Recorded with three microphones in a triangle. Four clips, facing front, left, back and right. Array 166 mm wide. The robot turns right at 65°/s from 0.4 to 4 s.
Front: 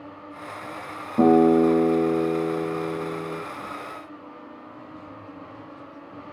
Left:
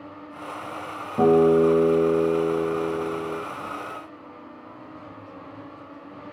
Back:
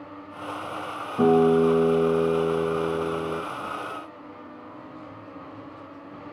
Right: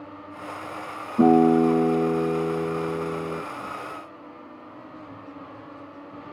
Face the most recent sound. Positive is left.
turn(degrees=-140)